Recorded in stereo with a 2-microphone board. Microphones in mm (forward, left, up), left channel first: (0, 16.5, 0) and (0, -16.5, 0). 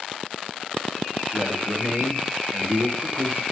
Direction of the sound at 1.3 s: 75° right (ahead or behind).